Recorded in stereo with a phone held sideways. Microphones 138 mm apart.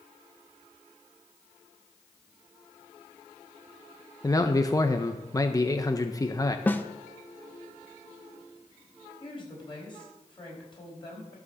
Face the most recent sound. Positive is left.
turn(degrees=35)  # may be behind; listen again after turning